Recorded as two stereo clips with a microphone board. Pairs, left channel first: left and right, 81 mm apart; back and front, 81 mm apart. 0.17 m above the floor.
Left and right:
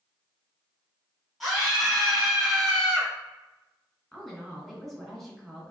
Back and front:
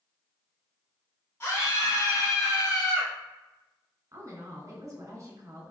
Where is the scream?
Straight behind, 1.3 m; by 3.1 s 175° left, 1.9 m.